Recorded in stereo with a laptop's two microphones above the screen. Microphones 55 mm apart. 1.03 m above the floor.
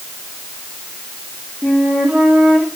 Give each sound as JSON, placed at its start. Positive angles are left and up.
{"t": 1.6, "sound": "a flute", "side_deg": -10, "distance_m": 2.5}